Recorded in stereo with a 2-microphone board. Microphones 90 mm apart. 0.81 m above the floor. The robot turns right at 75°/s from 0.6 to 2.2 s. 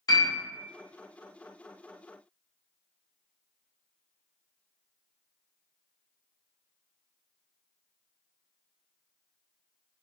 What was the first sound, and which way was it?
A piano, 45° left (ahead or behind).